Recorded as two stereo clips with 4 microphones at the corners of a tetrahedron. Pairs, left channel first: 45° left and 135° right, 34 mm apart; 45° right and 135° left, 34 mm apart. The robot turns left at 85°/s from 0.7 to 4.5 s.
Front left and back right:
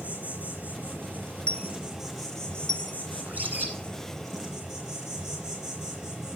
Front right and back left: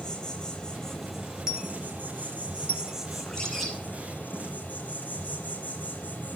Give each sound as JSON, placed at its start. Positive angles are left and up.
{"t": 0.0, "sound": "an insect", "azimuth_deg": -110, "distance_m": 5.0}
{"t": 1.5, "sound": "a dropped coin", "azimuth_deg": 75, "distance_m": 1.0}
{"t": 3.2, "sound": "a bird", "azimuth_deg": -90, "distance_m": 2.5}